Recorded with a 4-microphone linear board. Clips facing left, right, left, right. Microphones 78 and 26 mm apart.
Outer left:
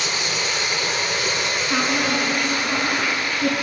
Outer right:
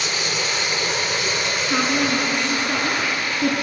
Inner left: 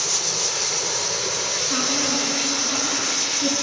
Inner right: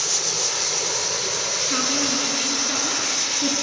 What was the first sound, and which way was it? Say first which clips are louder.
A woman speaking: outer right 2 dB, even; 10° left (ahead or behind).